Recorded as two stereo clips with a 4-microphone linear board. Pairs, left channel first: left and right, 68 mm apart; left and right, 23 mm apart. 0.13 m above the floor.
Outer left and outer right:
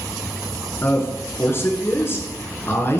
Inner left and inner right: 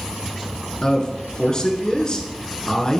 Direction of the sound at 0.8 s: 35° left (ahead or behind).